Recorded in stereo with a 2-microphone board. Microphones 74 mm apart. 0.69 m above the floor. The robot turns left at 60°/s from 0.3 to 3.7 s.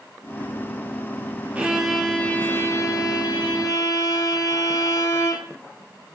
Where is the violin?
155° right, 0.5 m; by 5.5 s 75° left, 0.5 m.